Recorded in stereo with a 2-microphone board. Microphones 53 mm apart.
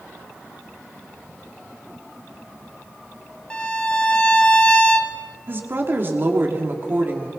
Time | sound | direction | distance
3.5 | a violin | 15° left (ahead or behind) | 1.3 m
5.5 | a woman speaking | 40° right (ahead or behind) | 2.5 m